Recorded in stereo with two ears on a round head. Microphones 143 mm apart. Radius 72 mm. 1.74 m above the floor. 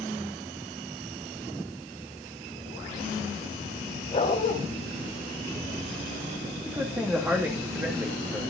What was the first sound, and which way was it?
A dog barking, 35° left (ahead or behind).